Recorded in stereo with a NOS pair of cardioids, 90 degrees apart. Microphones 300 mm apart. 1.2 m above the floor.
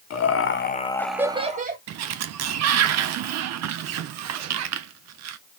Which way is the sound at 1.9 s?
65° right.